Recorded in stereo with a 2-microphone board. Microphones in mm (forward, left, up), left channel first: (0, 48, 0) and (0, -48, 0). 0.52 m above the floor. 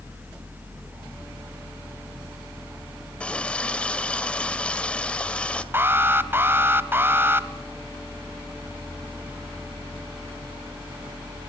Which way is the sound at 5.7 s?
20° right (ahead or behind).